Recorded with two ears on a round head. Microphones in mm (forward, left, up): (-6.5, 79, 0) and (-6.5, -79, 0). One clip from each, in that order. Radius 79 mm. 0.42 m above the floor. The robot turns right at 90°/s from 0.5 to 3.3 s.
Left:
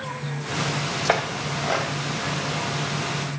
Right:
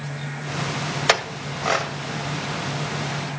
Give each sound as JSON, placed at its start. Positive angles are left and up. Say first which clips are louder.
{"t": 1.1, "sound": "a clink", "louder": "right 3 dB", "side_deg": -70, "distance_m": 1.0}